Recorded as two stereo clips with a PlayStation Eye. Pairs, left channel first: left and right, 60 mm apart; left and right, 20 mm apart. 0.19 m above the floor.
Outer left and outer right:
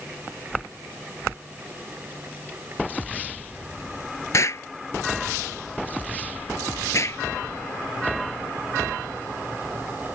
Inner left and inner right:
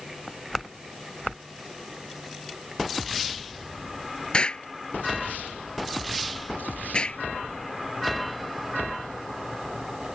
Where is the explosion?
60° left (ahead or behind).